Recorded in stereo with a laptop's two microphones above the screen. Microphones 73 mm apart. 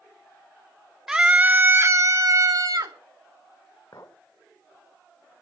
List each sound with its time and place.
1.1 s a scream: 10° right (ahead or behind), 1.1 m; by 3.0 s 60° right (ahead or behind), 1.8 m
3.9 s a clink: 55° left (ahead or behind), 3 m